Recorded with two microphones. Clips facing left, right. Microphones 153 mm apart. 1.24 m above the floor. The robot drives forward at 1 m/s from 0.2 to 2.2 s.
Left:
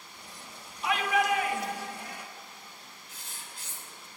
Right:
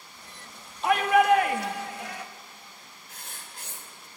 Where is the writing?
60° right (ahead or behind), 3 m.